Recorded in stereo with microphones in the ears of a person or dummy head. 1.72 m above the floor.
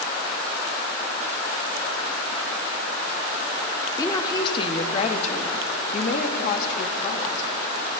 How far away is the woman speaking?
About 1.9 m.